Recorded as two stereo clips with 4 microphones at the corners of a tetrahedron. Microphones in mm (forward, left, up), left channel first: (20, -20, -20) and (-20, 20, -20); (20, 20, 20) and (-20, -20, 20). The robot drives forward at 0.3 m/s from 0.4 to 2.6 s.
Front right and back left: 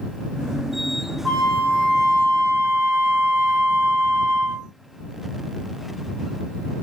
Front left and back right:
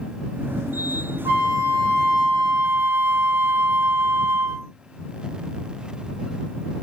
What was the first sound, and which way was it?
A flute, 130° right.